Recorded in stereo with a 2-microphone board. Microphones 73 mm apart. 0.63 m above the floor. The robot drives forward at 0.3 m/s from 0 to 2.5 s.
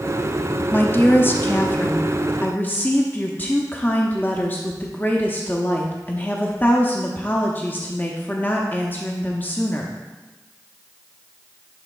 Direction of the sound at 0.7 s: 25° left (ahead or behind).